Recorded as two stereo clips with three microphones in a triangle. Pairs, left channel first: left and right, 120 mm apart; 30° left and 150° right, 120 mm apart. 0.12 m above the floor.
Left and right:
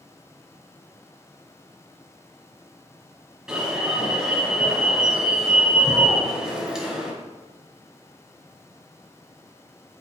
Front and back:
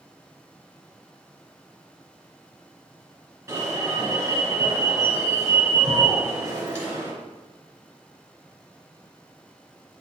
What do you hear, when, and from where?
3.5 s an alarm: 165° right, 2.5 m